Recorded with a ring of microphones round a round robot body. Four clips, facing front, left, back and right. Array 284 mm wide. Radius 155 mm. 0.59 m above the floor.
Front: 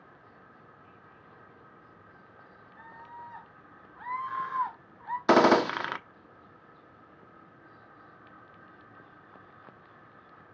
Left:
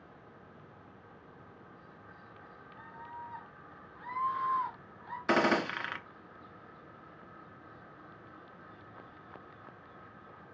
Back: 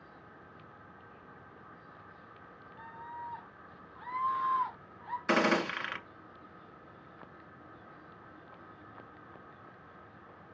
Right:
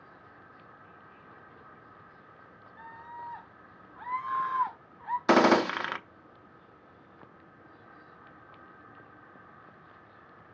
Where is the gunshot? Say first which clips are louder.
Right 6 dB, front 8 dB; 30° right, 0.7 m.